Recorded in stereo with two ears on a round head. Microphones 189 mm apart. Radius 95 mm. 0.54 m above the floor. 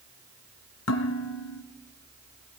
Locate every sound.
0.9 s dishes clattering: 85° left, 3.5 m